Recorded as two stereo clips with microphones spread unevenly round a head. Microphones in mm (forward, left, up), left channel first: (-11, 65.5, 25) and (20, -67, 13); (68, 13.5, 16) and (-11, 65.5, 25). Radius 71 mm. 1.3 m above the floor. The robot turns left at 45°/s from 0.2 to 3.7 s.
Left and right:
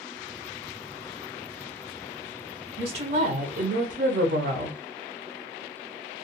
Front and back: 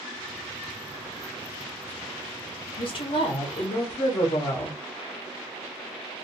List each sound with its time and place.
2.8 s a woman speaking: 30° right, 0.7 m; by 4.8 s 70° right, 0.7 m